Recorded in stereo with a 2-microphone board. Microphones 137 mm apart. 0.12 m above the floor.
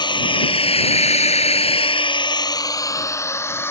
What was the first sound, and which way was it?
A drone, 35° left (ahead or behind).